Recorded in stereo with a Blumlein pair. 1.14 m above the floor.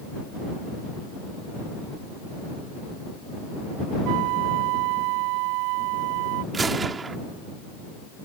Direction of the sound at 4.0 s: 45° right.